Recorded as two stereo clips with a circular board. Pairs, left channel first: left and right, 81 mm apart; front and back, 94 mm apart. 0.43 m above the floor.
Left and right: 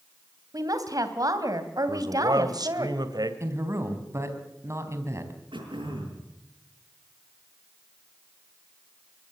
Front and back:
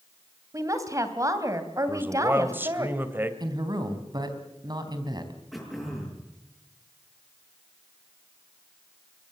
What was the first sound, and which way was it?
A woman speaking, 130° right.